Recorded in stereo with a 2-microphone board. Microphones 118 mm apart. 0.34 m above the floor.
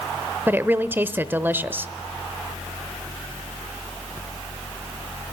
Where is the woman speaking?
20° right (ahead or behind), 0.9 m.